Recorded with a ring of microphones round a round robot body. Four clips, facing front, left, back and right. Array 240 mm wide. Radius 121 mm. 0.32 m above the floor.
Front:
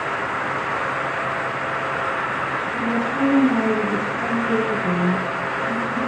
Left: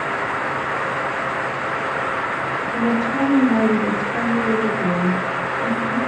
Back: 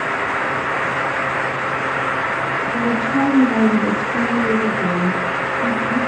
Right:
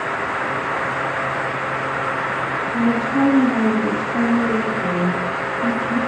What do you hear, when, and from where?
2.7 s a woman speaking: 145° left, 7.5 m